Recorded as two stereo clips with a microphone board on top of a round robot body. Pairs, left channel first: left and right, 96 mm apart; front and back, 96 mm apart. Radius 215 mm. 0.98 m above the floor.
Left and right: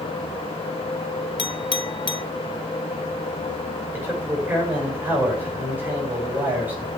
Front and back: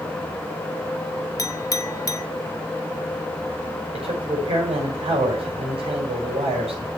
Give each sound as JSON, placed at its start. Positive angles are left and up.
{"t": 1.4, "sound": "a clink", "azimuth_deg": 55, "distance_m": 1.2}
{"t": 3.9, "sound": "a man speaking", "azimuth_deg": -160, "distance_m": 5.5}